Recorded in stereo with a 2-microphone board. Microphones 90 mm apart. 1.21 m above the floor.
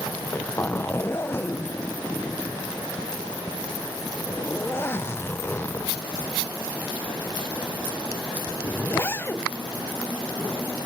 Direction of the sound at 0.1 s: 25° left (ahead or behind).